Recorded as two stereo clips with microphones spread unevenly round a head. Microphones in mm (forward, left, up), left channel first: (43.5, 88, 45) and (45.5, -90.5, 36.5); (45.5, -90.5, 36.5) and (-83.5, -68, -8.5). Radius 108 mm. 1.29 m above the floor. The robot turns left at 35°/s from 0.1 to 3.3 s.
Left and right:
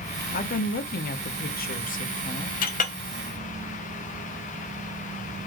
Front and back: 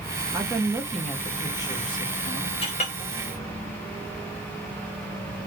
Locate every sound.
0.3 s a woman speaking: 115° left, 0.6 m; by 2.5 s 40° left, 0.6 m
2.6 s a clink: 50° left, 0.5 m; by 2.9 s 40° left, 0.5 m